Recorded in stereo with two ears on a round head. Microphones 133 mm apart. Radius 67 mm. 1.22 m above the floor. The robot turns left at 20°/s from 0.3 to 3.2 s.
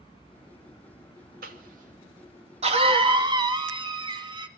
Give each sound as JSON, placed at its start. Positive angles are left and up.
{"t": 1.4, "sound": "a cough", "side_deg": -65, "distance_m": 2.5}